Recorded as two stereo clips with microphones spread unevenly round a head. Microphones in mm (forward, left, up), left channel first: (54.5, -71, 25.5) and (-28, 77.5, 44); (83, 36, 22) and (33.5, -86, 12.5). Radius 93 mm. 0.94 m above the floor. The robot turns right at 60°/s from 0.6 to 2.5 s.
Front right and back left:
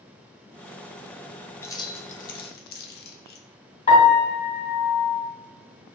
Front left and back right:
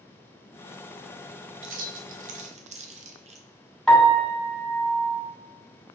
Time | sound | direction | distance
1.6 | keys jangling | 135° right | 0.6 m
3.9 | a piano | 20° right | 1.8 m